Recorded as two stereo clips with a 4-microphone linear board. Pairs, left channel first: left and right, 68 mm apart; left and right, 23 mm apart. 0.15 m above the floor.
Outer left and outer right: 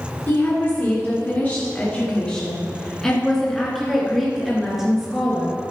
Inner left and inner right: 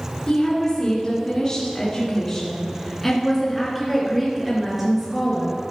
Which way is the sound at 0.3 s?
35° left (ahead or behind).